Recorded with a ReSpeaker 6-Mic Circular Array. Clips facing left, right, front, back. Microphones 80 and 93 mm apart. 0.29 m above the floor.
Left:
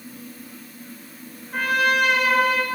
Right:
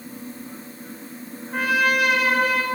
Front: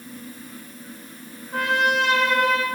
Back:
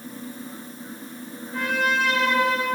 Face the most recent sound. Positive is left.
turn(degrees=-5)